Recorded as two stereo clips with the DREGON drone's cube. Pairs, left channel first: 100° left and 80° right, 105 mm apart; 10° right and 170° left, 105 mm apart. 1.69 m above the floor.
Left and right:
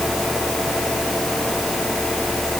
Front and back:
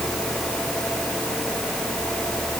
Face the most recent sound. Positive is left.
No sound to turn to.